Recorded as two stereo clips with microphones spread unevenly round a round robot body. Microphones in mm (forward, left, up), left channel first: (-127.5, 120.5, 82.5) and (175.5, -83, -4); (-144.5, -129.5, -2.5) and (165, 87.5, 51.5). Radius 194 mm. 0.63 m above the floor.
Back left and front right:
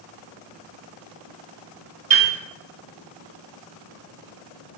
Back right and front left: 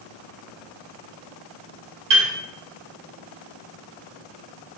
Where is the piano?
15° left, 1.4 m.